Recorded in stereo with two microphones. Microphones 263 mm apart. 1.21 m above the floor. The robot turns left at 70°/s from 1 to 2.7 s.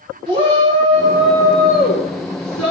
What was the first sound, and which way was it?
A shout, 160° right.